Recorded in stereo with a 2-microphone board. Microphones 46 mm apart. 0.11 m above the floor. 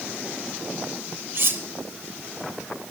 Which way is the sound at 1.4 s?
50° right (ahead or behind).